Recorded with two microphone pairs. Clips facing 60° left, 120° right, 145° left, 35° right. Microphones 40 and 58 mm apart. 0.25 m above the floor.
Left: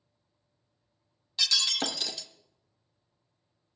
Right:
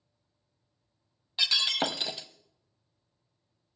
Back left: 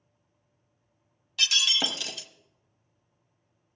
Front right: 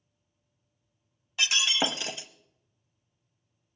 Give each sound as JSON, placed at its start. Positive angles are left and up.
{"t": 1.4, "sound": "breaking glass", "azimuth_deg": -75, "distance_m": 0.7}